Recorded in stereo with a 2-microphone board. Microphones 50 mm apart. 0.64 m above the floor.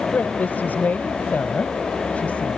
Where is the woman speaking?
45° left (ahead or behind); by 2.6 s 25° left (ahead or behind).